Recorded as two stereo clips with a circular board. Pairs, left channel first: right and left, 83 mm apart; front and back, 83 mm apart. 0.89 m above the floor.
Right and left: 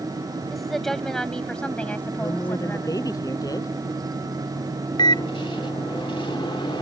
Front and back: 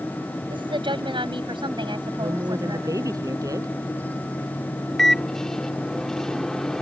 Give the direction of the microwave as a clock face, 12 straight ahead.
3 o'clock.